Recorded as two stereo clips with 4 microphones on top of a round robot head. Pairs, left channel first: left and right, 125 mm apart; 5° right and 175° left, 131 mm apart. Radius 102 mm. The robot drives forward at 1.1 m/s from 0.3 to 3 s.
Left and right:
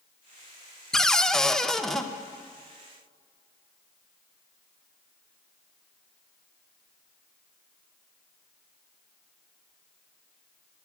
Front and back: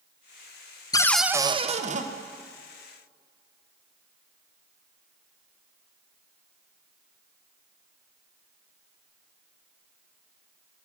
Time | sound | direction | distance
0.9 | a cupboard door | 10° left | 0.7 m